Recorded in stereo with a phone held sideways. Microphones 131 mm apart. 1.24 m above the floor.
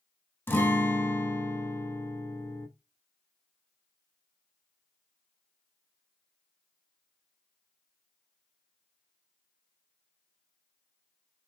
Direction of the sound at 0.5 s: 15° left (ahead or behind).